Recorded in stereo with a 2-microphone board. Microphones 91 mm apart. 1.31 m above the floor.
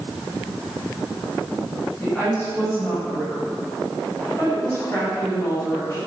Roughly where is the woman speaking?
Centre.